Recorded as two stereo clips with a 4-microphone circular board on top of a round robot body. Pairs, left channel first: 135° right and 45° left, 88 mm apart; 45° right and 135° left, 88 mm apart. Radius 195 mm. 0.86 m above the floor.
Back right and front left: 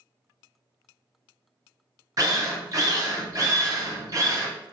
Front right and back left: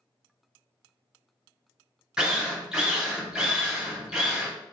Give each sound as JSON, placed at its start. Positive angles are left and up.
{"t": 2.2, "sound": "a drill", "azimuth_deg": 60, "distance_m": 1.2}